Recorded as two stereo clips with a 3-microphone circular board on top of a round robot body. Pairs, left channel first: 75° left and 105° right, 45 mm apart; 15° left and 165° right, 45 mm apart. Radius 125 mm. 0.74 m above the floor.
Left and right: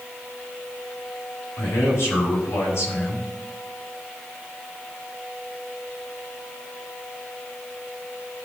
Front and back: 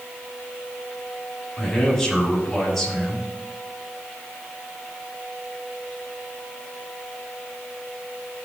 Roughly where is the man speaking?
Left.